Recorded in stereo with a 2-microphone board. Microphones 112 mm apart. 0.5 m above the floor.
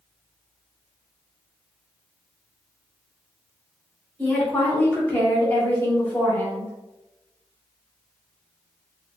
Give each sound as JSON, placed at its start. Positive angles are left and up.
{"t": 4.2, "sound": "a woman speaking", "side_deg": 15, "distance_m": 1.3}